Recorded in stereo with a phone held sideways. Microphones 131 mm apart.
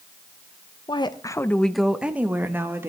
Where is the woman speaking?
35° left (ahead or behind), 0.6 m; by 2.9 s 20° right (ahead or behind), 1.5 m.